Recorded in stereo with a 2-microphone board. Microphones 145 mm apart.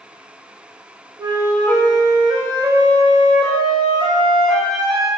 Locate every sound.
1.2 s a flute: 30° right (ahead or behind), 0.5 m